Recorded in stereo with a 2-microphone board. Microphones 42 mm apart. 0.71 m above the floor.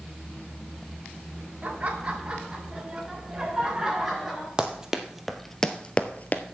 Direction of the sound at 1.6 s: 35° right (ahead or behind).